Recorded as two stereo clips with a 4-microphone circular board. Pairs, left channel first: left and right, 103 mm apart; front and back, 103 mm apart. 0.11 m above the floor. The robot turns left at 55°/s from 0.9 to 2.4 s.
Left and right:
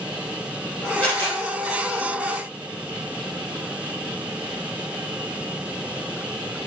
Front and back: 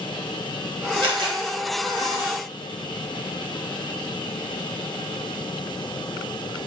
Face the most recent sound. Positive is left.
turn(degrees=85)